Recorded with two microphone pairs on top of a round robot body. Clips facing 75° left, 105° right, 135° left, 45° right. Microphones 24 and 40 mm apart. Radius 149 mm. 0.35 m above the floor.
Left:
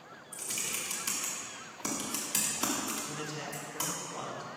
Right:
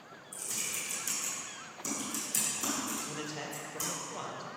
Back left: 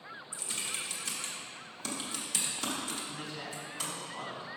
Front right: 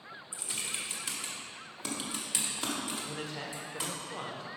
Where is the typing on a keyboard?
30° left, 1.9 m.